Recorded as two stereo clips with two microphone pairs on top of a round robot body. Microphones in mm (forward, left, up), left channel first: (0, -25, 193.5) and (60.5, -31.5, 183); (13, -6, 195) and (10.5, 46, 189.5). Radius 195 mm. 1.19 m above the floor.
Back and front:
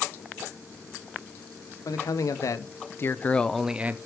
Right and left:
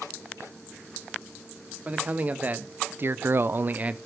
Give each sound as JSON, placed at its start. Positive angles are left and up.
{"t": 1.9, "sound": "a man speaking", "azimuth_deg": 150, "distance_m": 1.2}